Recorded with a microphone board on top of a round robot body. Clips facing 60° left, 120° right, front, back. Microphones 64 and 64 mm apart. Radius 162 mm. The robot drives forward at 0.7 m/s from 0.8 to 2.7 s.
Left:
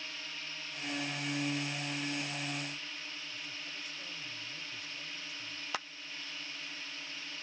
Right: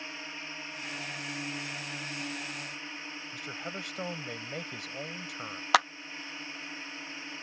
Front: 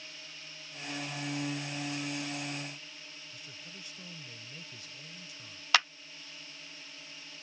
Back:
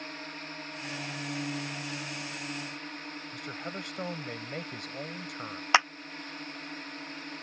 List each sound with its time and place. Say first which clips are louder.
0.0 s a drone: right 3 dB, back 9 dB; 175° right
3.3 s a man speaking: right 6 dB, back 12 dB; 145° right
5.7 s a clap: right 16 dB, back 5 dB; 110° right